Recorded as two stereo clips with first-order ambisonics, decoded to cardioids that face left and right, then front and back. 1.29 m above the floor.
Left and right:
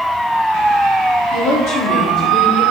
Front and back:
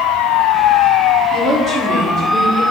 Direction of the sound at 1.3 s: 125° left.